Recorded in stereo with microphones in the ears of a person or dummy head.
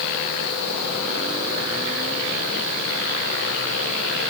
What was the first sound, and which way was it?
Only background noise.